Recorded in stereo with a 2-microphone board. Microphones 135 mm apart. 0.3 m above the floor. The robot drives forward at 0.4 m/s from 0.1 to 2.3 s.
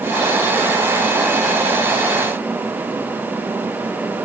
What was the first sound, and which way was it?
Only background noise.